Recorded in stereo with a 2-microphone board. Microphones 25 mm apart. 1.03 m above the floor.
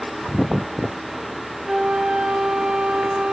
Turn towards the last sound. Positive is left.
turn(degrees=-35)  # may be behind; listen again after turning